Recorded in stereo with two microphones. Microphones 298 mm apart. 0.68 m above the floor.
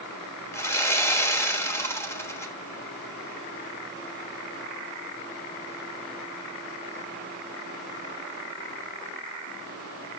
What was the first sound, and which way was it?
Sawing, 10° left (ahead or behind).